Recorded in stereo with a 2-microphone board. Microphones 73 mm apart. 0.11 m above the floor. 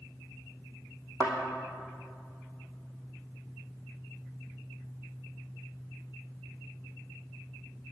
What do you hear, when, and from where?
1.2 s a thud: 20° left (ahead or behind), 2 m